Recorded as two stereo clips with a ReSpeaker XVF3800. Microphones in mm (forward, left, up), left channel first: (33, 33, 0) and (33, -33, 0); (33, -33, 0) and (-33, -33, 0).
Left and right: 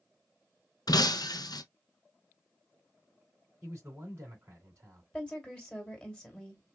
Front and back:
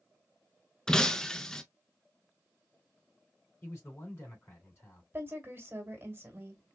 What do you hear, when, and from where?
0.9 s breaking glass: 80° left, 0.7 m
3.6 s a man speaking: 45° right, 3 m
5.1 s a woman speaking: 155° left, 1.7 m